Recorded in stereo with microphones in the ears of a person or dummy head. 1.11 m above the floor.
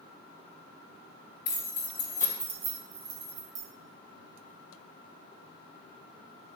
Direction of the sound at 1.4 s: 55° left (ahead or behind).